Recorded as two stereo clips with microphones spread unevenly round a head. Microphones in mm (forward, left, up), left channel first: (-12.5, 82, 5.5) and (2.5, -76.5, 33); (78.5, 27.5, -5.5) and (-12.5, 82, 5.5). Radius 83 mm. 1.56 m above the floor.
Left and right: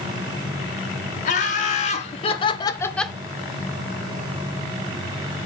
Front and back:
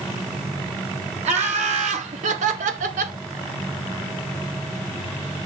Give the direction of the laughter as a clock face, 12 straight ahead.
7 o'clock.